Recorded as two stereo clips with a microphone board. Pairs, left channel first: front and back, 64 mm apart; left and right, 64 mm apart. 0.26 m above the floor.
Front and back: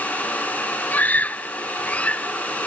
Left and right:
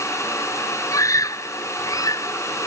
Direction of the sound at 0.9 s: 65° left.